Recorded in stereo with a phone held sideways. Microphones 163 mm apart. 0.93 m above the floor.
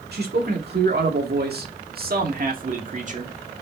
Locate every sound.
0.1 s a man speaking: 75° right (ahead or behind), 2 m; by 3.3 s 45° right (ahead or behind), 1.8 m